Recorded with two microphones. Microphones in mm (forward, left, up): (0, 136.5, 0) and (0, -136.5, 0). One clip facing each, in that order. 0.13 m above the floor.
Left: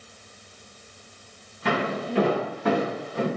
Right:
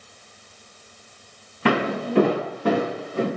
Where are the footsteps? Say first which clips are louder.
Right 5 dB; 80° right, 0.7 m; by 3.3 s 25° right (ahead or behind), 1.6 m.